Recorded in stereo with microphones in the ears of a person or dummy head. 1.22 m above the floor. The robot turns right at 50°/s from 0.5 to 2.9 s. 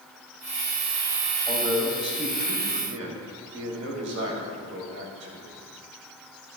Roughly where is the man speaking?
Behind.